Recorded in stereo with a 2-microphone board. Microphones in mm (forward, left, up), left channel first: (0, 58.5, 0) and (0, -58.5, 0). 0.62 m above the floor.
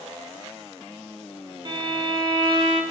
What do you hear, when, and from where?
1.6 s a violin: 45° right (ahead or behind), 1.5 m